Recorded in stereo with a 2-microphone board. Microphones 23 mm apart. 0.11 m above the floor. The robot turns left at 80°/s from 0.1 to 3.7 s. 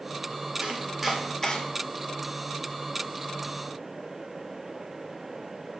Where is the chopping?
35° right (ahead or behind), 0.8 m; by 1.6 s 30° left (ahead or behind), 0.8 m.